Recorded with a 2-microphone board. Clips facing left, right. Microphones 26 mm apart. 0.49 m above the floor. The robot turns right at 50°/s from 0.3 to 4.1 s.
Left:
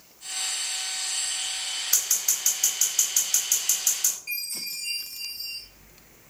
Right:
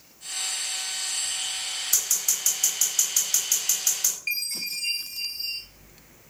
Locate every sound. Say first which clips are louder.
1.9 s scissors: even; 30° left (ahead or behind), 1.7 m; by 4.2 s 30° right (ahead or behind), 1.7 m
4.3 s a chime: right 4 dB; 60° right (ahead or behind), 0.7 m